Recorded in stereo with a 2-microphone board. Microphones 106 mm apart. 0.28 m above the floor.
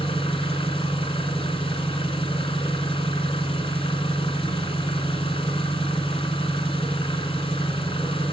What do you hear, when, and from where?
0.0 s an engine running: 60° left (ahead or behind), 1.3 m